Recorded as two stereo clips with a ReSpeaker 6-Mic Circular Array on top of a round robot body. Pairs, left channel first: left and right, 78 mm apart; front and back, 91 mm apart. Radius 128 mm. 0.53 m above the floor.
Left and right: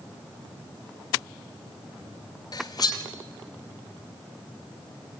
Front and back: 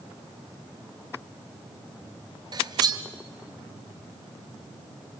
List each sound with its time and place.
2.5 s cutlery clinking: 135° left, 1.6 m